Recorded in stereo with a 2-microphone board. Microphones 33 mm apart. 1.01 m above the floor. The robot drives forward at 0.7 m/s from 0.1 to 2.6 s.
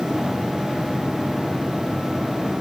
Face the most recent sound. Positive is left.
No sound to turn to.